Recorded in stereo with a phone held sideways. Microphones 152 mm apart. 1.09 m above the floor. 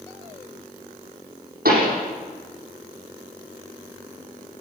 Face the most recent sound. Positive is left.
turn(degrees=-85)